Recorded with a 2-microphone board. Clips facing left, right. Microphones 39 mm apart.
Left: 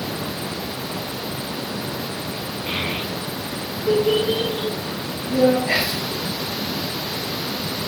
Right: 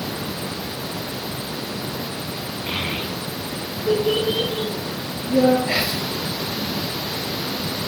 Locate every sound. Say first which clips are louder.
2.7 s a child speaking: left 1 dB; 10° right (ahead or behind), 2 m; by 5.6 s 45° right (ahead or behind), 3.5 m
5.7 s whispering: left 1 dB; centre (ahead or behind), 2.5 m